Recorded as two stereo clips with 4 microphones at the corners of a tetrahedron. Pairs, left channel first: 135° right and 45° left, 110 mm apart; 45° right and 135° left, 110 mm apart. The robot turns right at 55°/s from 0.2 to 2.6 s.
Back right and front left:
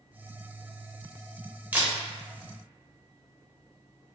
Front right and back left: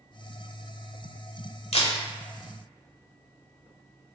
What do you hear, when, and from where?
1.7 s a camera shutter: 30° right, 0.6 m; by 1.9 s 15° right, 0.6 m